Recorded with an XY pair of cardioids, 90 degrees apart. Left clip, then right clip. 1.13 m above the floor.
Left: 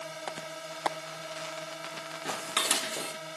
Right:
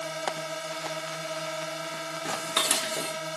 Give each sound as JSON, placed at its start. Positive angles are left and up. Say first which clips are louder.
{"t": 0.0, "sound": "a drone", "louder": "right 6 dB", "azimuth_deg": -50}
{"t": 2.2, "sound": "dishes clattering", "louder": "right 2 dB", "azimuth_deg": -25}